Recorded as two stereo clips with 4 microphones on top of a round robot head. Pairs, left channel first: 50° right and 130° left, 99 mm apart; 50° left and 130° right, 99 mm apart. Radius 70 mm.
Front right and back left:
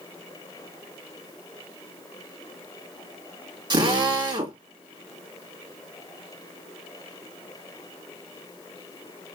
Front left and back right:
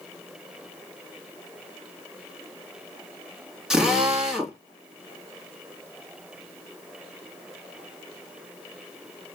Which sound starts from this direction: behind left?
A drill, at 3.7 s.